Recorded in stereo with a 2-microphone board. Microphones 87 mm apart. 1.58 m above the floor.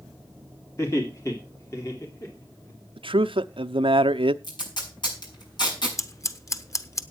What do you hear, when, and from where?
0.8 s laughter: 35° left (ahead or behind), 2.5 m
3.0 s a man speaking: 85° right, 0.7 m
4.4 s tape being pulled: 60° left (ahead or behind), 5.5 m
6.0 s scissors: 35° left (ahead or behind), 1.0 m